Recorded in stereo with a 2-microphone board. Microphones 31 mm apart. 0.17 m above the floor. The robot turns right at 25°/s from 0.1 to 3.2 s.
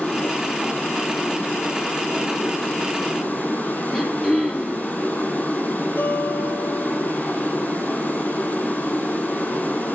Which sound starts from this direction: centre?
Throat clearing, at 3.9 s.